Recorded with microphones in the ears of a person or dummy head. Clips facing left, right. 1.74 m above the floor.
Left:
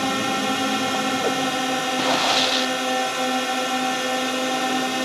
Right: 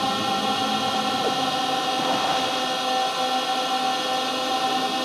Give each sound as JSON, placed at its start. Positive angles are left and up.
{"t": 0.0, "sound": "a drone", "side_deg": 25}